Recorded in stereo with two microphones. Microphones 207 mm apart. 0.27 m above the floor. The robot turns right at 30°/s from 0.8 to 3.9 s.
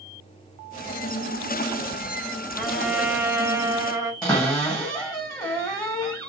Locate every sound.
2.6 s a trumpet: 5° left (ahead or behind), 1.0 m; by 4.1 s 15° right (ahead or behind), 1.0 m
4.2 s a cupboard door: 15° left (ahead or behind), 1.8 m